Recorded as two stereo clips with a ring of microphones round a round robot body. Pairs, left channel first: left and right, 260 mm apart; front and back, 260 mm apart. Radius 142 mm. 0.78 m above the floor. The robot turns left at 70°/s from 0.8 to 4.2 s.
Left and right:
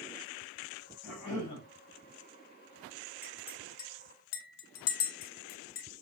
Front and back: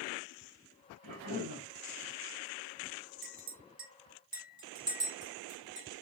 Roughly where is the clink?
Behind.